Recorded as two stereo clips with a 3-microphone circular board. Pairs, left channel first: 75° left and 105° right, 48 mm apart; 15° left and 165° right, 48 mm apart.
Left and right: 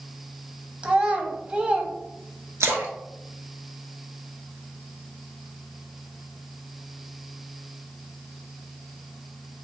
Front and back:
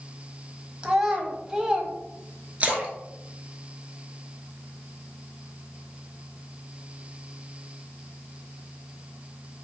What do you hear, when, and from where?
0.8 s a child speaking: 105° right, 0.6 m
2.6 s a splash: 105° right, 0.7 m